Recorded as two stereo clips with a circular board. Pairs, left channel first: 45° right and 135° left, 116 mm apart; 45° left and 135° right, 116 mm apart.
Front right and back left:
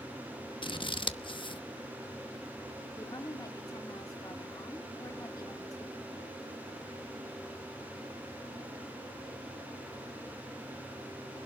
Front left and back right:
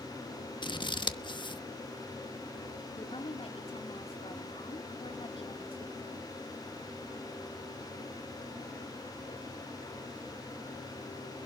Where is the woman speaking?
10° left, 3 m.